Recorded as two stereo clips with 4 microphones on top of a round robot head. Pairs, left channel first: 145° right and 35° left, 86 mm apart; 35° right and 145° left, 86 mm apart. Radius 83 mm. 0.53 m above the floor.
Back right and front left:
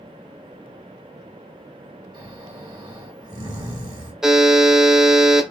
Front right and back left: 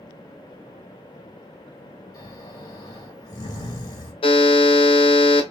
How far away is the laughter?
No laughter in this recording.